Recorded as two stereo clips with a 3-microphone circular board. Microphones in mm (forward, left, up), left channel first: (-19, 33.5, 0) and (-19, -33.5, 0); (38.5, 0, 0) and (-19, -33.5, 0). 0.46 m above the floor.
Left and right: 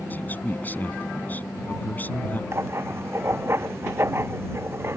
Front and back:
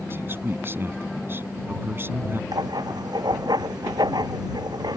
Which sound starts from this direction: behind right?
Writing, at 2.5 s.